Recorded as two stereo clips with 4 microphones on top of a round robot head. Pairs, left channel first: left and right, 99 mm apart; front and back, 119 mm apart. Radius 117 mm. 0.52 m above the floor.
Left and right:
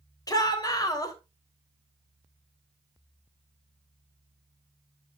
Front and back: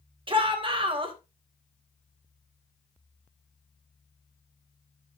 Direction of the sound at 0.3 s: 135° left.